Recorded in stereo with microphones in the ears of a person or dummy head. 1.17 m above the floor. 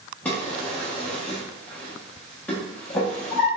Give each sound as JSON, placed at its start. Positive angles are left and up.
{"t": 0.2, "sound": "a drawer", "side_deg": 10, "distance_m": 0.5}